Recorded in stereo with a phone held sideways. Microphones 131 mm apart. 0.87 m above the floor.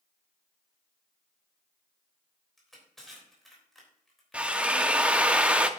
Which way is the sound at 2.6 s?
Centre (ahead or behind).